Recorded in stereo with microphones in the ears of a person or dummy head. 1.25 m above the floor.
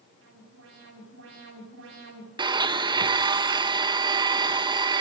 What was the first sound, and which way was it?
An alarm, 85° right.